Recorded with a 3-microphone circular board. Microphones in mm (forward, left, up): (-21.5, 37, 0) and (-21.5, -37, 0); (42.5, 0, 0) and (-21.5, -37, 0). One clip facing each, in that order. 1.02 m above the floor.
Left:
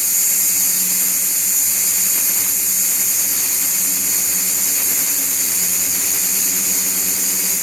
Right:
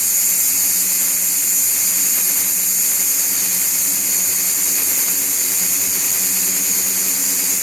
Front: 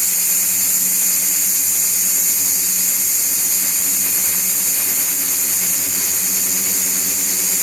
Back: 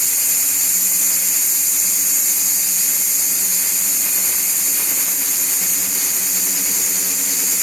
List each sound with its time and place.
Only background noise.